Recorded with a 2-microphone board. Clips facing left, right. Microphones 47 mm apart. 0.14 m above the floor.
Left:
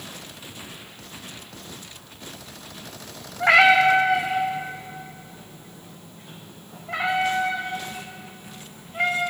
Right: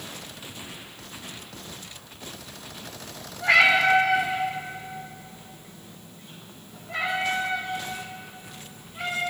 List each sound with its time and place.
3.4 s a cat meowing: 70° left (ahead or behind), 2.5 m; by 9.3 s 65° left (ahead or behind), 4.5 m